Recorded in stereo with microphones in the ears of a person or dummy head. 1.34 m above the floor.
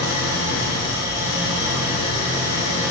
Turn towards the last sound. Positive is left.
turn(degrees=-20)  # may be behind; listen again after turning